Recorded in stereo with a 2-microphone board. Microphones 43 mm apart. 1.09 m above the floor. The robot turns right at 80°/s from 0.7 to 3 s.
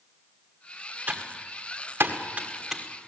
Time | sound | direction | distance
1.1 | typing on a keyboard | 40° right (ahead or behind) | 2.0 m